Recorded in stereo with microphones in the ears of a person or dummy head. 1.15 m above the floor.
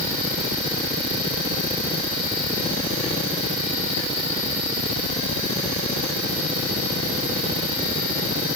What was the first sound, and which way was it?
Only background noise.